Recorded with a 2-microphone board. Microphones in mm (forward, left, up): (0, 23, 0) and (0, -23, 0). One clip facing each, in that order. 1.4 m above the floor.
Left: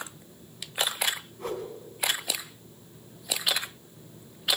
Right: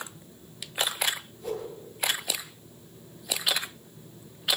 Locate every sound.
1.4 s a whoosh: 75° left (ahead or behind), 4.5 m